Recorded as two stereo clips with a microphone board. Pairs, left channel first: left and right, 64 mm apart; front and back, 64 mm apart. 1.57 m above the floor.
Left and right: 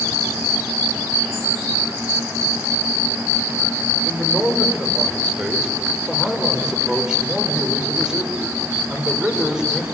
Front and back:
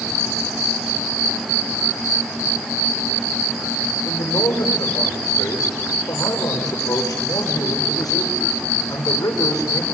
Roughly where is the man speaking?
Ahead.